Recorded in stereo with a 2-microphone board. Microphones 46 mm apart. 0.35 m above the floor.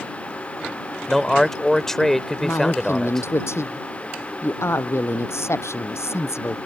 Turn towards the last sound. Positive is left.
turn(degrees=80)